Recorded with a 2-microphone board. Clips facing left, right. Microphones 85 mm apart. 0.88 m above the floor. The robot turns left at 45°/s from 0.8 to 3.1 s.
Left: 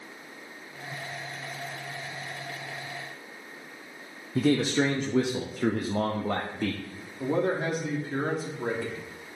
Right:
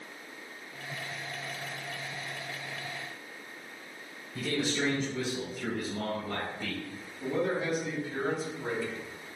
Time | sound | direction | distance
4.3 | a man speaking | 65° left (ahead or behind) | 0.7 m
7.2 | a man speaking | 55° left (ahead or behind) | 1.7 m